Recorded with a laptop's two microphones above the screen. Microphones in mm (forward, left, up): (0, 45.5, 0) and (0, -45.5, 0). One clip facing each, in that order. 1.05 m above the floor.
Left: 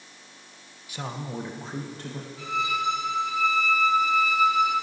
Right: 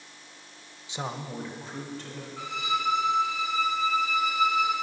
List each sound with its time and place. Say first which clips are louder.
0.9 s a man speaking: even; 25° right (ahead or behind), 0.6 m; by 2.3 s 45° left (ahead or behind), 1.4 m
2.4 s a violin: left 2 dB; 55° right (ahead or behind), 2.5 m